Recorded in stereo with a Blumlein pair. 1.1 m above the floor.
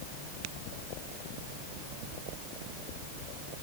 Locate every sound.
Only background noise.